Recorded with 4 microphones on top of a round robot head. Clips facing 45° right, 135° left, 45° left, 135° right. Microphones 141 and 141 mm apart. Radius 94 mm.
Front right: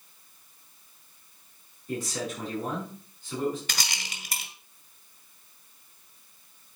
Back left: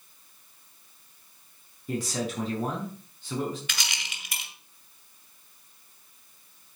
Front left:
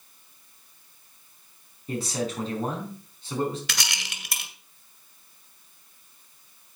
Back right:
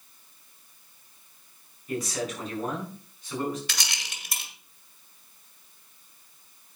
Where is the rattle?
10° left, 1.5 m.